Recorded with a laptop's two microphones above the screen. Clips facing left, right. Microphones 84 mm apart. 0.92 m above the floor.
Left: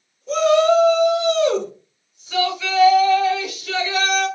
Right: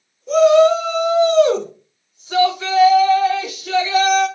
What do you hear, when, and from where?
0.3 s a shout: 15° right (ahead or behind), 1.1 m; by 4.3 s 25° right (ahead or behind), 1.6 m